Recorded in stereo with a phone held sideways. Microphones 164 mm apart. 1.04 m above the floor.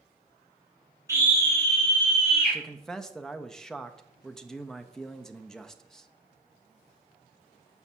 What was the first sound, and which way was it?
A scream, 20° right (ahead or behind).